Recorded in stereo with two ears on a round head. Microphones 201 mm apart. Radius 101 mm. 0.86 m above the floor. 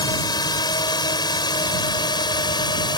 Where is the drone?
20° left (ahead or behind).